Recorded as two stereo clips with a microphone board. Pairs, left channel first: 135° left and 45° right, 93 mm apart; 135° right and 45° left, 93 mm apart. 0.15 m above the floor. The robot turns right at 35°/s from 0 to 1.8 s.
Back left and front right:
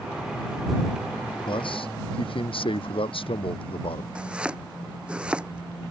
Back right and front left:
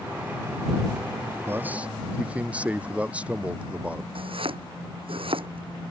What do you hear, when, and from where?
1.5 s a man speaking: 110° left; by 4.0 s 120° left
4.2 s chopping: 35° left